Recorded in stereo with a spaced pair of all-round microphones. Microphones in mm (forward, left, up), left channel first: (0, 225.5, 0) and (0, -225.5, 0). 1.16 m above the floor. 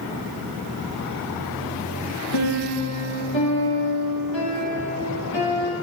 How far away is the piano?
About 1.4 m.